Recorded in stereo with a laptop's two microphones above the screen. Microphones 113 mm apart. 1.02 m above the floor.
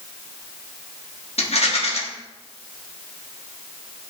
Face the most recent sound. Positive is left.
turn(degrees=70)  # may be behind; listen again after turning